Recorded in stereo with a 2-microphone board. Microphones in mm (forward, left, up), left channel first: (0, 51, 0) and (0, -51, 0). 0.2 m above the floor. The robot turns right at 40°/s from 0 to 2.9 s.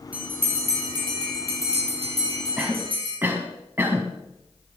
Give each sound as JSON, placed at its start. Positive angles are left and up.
{"t": 0.1, "sound": "a bell", "side_deg": -15, "distance_m": 5.5}
{"t": 2.6, "sound": "a cough", "side_deg": -15, "distance_m": 1.3}